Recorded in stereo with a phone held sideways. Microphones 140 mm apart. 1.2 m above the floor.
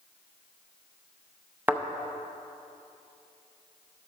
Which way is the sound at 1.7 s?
15° right (ahead or behind).